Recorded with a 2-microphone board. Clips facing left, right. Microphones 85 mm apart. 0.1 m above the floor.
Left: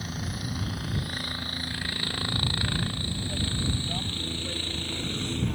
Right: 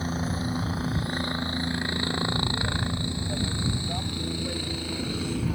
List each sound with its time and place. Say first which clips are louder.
0.0 s a helicopter: right 6 dB; 30° right (ahead or behind); by 5.6 s 5° right (ahead or behind)